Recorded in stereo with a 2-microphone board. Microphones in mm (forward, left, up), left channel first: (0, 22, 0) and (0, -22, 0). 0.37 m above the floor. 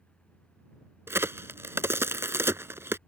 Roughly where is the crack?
Right.